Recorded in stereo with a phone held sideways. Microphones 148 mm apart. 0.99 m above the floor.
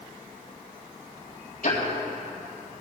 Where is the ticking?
65° left (ahead or behind), 4.5 m.